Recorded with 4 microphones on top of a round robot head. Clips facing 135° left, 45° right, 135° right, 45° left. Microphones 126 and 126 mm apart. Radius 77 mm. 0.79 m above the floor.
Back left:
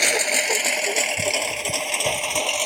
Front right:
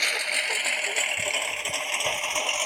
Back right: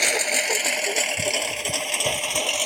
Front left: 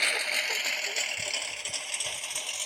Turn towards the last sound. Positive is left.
turn(degrees=-165)